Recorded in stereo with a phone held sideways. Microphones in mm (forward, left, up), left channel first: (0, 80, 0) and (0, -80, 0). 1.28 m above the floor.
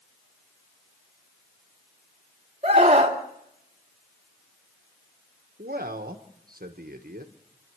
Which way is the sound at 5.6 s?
65° right (ahead or behind).